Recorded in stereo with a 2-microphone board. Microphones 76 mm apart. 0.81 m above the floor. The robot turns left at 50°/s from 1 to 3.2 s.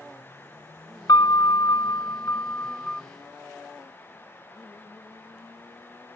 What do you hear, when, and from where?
1.1 s a piano: 110° left; by 3.0 s 15° left